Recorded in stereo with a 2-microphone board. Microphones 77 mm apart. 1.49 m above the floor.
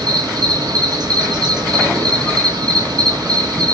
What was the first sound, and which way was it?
An insect, 70° right (ahead or behind).